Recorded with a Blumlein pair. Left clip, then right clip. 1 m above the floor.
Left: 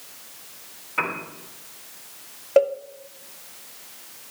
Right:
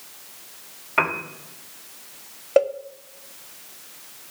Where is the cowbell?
5° right, 0.6 m.